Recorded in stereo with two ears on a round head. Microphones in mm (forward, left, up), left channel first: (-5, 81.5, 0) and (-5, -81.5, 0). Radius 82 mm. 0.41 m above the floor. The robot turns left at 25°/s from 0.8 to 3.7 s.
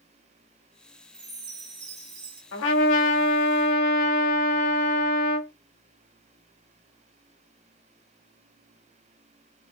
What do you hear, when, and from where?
1.1 s a chime: 80° right, 1.7 m; by 2.4 s 110° right, 1.7 m
2.5 s a trumpet: 75° left (ahead or behind), 1.2 m; by 5.5 s 60° left (ahead or behind), 1.2 m